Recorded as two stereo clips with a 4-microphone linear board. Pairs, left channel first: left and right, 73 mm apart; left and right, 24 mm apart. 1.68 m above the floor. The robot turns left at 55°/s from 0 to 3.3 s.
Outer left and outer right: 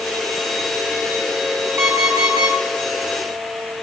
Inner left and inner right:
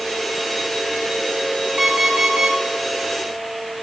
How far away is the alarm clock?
About 1.9 m.